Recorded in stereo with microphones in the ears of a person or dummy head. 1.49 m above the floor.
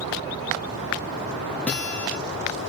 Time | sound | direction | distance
1.7 | a guitar | 5° left (ahead or behind) | 0.6 m